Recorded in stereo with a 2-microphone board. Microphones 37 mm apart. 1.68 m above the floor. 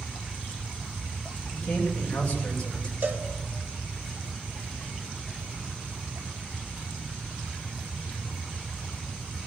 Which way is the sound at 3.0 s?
55° right (ahead or behind).